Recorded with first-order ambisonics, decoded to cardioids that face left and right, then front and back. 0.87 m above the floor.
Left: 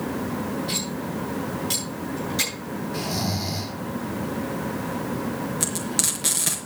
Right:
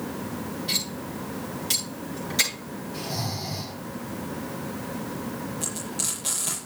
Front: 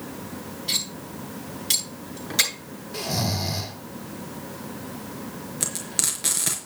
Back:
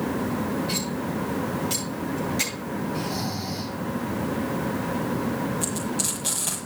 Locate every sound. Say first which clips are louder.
0.7 s cutlery clinking: even, even; 10° right, 8 m
2.9 s snoring: left 3 dB, front 2 dB; 20° left, 2 m
5.6 s frying: left 6 dB, even; 45° left, 4.5 m